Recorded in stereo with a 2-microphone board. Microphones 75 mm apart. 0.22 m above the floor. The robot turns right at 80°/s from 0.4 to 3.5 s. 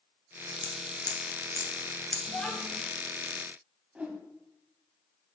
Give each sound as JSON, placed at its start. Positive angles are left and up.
{"t": 0.6, "sound": "scissors", "side_deg": 45, "distance_m": 1.0}
{"t": 2.3, "sound": "a child speaking", "side_deg": 15, "distance_m": 0.7}
{"t": 4.0, "sound": "a whoosh", "side_deg": -15, "distance_m": 0.9}